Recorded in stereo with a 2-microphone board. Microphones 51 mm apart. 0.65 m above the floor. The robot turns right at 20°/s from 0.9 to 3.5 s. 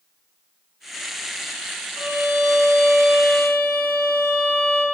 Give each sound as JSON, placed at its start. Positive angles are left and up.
{"t": 2.0, "sound": "a violin", "azimuth_deg": -25, "distance_m": 1.8}